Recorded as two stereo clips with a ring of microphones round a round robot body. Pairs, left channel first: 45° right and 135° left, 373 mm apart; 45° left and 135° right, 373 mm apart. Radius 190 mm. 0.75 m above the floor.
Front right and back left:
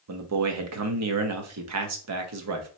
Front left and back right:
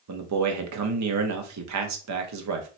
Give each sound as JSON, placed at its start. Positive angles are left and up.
{"t": 0.1, "sound": "a man speaking", "azimuth_deg": 180, "distance_m": 0.9}